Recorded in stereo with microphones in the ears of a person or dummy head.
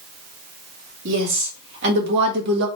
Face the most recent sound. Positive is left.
turn(degrees=-60)  # may be behind; listen again after turning